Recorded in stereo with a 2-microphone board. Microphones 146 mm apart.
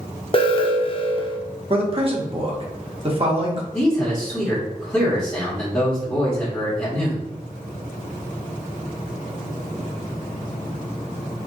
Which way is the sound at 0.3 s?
35° left (ahead or behind).